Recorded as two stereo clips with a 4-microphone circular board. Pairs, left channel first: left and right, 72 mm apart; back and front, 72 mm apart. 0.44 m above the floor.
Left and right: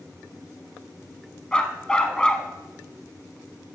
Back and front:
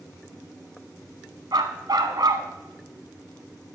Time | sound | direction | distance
1.5 | a dog barking | 15° left | 0.8 m